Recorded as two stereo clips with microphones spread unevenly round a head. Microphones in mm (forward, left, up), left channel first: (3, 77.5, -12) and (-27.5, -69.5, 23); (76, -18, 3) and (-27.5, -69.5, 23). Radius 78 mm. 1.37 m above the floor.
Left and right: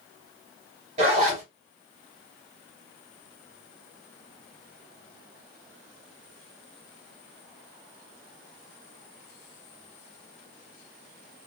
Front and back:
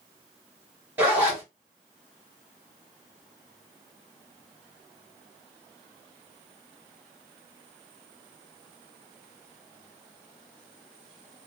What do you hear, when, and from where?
1.0 s a zipper: 95° right, 1.3 m